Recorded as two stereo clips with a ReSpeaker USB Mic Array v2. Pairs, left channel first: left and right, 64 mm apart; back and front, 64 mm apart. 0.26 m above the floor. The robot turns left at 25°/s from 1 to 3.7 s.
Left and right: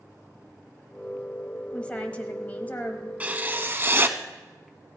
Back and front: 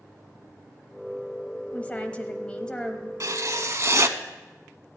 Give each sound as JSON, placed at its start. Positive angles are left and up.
{"t": 1.7, "sound": "a woman speaking", "azimuth_deg": 145, "distance_m": 1.0}
{"t": 3.2, "sound": "writing", "azimuth_deg": -25, "distance_m": 0.6}